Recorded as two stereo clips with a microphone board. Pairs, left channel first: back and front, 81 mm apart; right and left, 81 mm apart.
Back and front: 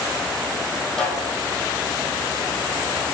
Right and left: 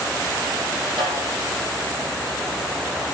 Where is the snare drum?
95° left, 3.5 m.